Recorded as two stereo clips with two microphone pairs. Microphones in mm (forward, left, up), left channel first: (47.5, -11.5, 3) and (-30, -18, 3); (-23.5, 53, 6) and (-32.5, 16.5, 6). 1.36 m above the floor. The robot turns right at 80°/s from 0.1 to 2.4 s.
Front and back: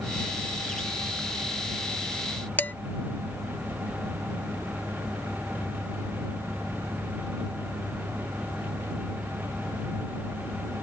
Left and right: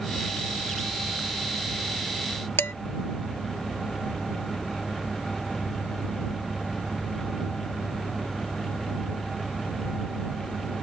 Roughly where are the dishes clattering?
Left.